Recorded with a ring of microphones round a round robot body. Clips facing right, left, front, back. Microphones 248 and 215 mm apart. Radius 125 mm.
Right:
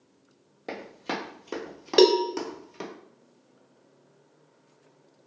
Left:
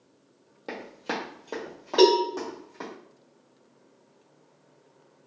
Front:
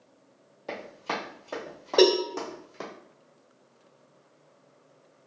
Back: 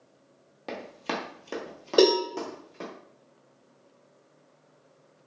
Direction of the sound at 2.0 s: 115° right.